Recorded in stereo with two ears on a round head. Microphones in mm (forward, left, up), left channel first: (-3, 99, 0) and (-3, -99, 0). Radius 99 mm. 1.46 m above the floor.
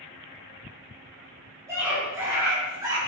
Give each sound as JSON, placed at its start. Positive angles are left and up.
{"t": 1.7, "sound": "a scream", "side_deg": -15, "distance_m": 6.5}